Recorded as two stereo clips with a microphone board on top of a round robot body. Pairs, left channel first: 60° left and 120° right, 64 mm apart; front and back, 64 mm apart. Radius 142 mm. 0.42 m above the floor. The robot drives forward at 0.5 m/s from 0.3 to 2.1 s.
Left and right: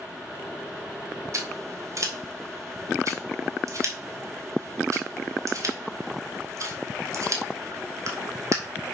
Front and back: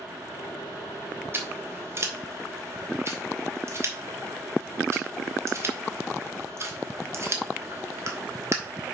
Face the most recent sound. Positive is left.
turn(degrees=-145)